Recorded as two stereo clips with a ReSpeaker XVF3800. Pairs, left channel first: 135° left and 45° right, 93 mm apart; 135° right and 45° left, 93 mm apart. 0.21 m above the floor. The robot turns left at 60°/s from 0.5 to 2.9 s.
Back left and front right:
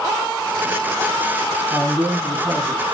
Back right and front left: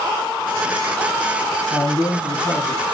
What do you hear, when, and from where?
1.7 s a man speaking: 95° right, 1.6 m; by 2.8 s 165° right, 1.6 m